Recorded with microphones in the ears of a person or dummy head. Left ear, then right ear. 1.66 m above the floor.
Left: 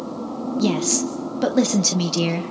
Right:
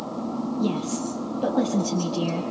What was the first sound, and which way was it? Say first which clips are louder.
A woman speaking: left 8 dB; 70° left (ahead or behind).